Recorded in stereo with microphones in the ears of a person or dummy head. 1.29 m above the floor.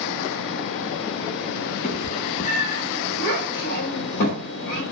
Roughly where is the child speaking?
Left.